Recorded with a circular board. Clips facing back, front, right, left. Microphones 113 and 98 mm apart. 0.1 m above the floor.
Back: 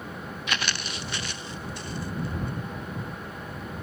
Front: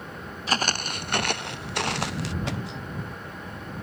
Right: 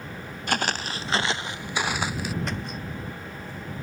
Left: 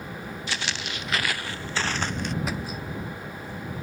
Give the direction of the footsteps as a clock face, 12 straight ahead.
2 o'clock.